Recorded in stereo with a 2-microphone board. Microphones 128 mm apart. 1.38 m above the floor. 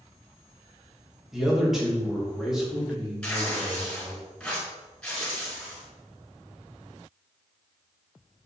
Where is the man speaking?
5° right (ahead or behind), 2.5 m.